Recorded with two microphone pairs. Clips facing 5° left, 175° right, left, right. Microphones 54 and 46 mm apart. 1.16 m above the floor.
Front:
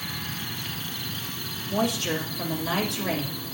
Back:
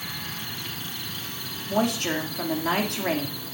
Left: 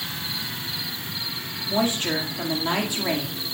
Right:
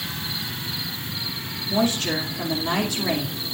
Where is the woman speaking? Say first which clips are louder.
Back 2 dB, right 1 dB; 155° left, 2 m.